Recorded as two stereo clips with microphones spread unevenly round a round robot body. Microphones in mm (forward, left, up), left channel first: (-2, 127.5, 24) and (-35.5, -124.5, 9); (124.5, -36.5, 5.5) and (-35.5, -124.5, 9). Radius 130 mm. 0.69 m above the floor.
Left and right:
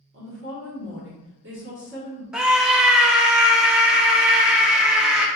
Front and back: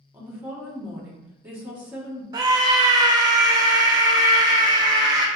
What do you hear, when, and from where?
0.1 s a woman speaking: 70° right, 1.6 m
2.3 s a scream: 170° right, 0.5 m